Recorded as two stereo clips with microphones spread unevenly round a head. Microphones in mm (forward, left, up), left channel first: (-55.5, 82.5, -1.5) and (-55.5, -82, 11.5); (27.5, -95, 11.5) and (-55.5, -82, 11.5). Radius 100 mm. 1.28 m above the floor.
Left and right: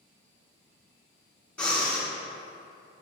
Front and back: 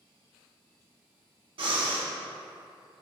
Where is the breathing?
175° left, 0.9 m.